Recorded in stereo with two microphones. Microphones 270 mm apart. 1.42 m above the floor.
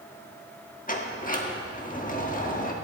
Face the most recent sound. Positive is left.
turn(degrees=30)  # may be behind; listen again after turning